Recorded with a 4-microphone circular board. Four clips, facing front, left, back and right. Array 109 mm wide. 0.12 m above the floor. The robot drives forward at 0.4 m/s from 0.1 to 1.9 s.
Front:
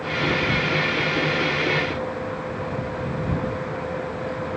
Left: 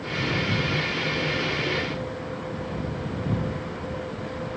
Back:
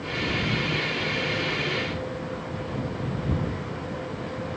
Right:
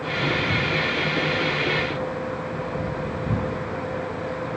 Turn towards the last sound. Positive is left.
No sound to turn to.